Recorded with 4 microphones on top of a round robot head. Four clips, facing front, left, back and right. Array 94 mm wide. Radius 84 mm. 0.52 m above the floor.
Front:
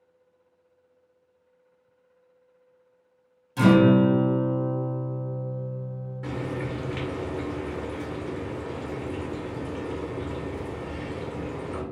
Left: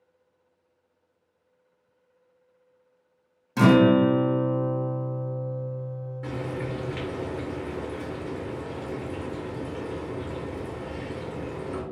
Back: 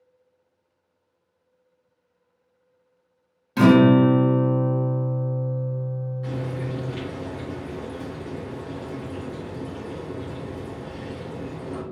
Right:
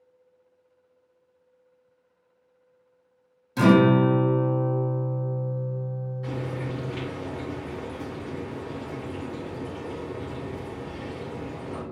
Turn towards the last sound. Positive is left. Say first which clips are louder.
# left 1 dB, front 2 dB
turn(degrees=45)